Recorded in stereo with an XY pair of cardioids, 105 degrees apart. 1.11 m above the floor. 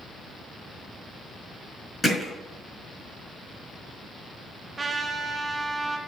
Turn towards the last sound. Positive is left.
turn(degrees=-30)